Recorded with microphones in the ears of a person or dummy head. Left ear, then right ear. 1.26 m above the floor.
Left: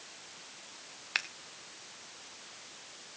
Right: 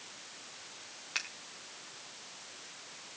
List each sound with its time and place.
1.1 s scissors: 15° left (ahead or behind), 0.9 m